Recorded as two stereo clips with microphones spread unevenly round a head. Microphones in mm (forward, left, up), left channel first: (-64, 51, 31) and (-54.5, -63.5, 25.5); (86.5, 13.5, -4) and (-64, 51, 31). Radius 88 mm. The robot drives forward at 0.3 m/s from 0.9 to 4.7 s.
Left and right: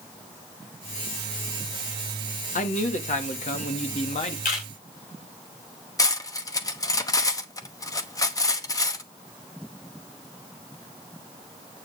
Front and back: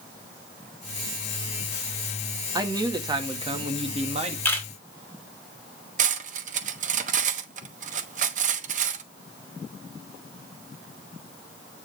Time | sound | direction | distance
2.5 | a man speaking | 100° left | 1.6 m
4.5 | a camera shutter | 65° left | 3.5 m
6.0 | cutlery clinking | 145° left | 1.1 m